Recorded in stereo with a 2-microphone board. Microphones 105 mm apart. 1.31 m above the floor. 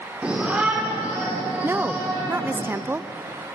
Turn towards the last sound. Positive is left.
turn(degrees=-20)  # may be behind; listen again after turning